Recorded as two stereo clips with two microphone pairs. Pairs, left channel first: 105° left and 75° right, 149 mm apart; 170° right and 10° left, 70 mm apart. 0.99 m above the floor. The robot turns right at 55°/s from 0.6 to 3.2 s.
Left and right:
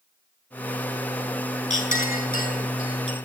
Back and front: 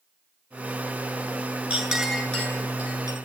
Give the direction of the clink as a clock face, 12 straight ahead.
9 o'clock.